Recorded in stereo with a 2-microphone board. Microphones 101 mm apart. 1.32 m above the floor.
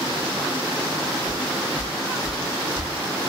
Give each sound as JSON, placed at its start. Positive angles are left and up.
{"t": 1.3, "sound": "footsteps", "side_deg": 15, "distance_m": 1.4}